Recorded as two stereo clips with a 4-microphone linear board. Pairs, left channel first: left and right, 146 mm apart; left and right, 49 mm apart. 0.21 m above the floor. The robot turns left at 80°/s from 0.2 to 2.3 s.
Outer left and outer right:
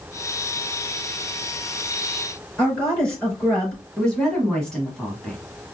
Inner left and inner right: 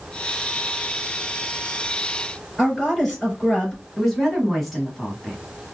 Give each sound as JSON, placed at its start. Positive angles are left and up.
{"t": 2.6, "sound": "a woman speaking", "side_deg": 5, "distance_m": 4.0}
{"t": 4.0, "sound": "a woman speaking", "side_deg": 5, "distance_m": 1.7}